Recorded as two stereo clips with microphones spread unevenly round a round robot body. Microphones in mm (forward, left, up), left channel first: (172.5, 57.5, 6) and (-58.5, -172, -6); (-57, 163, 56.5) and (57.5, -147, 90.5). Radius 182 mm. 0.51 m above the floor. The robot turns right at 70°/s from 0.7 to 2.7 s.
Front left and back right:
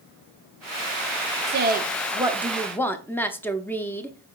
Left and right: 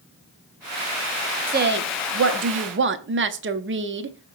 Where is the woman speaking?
125° right, 0.7 m; by 4.4 s 40° right, 0.7 m.